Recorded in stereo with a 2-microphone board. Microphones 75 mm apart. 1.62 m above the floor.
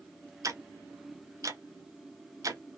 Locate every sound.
0.4 s ticking: 50° right (ahead or behind), 0.5 m